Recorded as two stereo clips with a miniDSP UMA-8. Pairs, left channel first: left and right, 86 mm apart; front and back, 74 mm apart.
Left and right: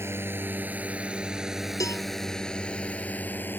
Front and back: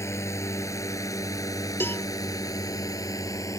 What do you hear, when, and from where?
0.0 s a drone: 40° right; by 3.6 s 30° left
1.8 s a cowbell: 55° left